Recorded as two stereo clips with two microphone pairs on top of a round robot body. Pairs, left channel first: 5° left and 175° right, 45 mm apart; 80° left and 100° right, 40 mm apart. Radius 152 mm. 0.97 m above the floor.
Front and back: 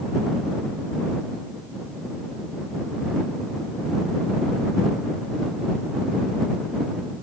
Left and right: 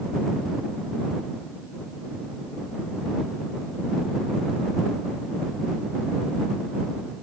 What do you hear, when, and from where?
Only background noise.